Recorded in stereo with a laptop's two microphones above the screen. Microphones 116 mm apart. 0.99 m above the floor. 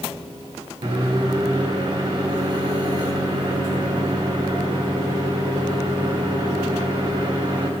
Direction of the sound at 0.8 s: 40° right (ahead or behind).